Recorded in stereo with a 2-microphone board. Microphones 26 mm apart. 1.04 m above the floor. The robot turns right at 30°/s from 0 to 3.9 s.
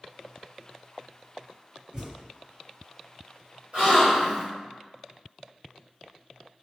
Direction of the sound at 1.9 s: 35° right (ahead or behind).